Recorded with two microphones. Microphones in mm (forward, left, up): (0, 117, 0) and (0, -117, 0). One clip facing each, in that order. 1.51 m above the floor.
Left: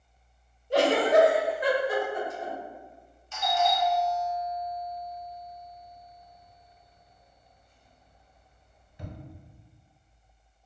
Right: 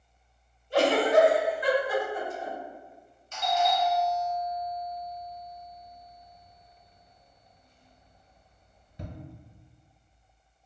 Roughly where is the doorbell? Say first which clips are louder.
Even; right.